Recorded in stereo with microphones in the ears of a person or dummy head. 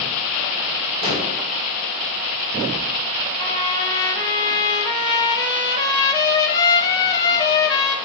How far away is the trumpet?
About 1.0 m.